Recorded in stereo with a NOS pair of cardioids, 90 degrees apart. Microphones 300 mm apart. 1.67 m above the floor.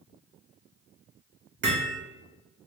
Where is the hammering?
40° right, 1.2 m.